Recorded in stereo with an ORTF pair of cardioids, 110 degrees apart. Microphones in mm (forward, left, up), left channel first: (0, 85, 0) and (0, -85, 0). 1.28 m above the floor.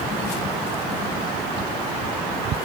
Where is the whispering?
No whispering in this recording.